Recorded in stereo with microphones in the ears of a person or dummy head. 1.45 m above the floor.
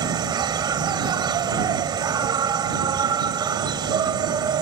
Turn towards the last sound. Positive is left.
turn(degrees=-25)  # may be behind; listen again after turning